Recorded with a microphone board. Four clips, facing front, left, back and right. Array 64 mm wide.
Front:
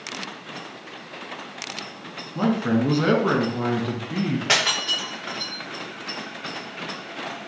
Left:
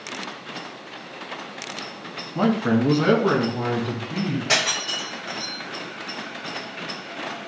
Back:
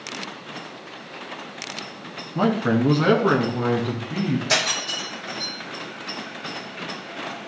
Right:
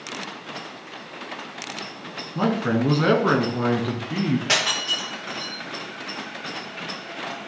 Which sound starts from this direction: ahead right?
Breaking glass, at 4.5 s.